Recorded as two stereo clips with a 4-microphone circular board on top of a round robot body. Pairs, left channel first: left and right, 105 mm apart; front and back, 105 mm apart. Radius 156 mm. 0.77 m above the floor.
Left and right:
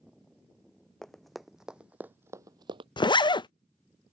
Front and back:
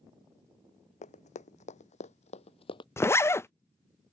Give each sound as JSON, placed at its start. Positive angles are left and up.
{"t": 1.0, "sound": "running footsteps", "azimuth_deg": 5}
{"t": 3.0, "sound": "a zipper", "azimuth_deg": 60}